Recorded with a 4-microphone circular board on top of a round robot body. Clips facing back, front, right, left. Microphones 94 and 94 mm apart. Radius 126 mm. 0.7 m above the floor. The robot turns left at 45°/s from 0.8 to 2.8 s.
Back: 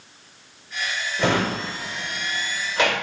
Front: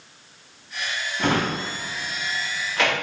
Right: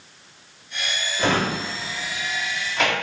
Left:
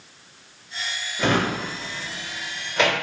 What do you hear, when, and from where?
1.2 s a drawer: straight behind, 1.5 m; by 2.9 s 110° left, 1.5 m